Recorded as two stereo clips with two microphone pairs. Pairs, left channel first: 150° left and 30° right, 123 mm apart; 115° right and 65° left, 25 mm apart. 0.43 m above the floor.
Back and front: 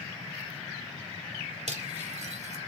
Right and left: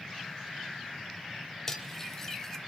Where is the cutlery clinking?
45° right, 1.1 m.